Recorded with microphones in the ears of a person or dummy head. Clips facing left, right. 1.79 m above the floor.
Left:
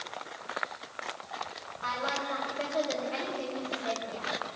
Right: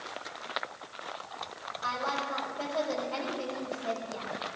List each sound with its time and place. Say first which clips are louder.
1.8 s a woman speaking: even; 30° left (ahead or behind), 4 m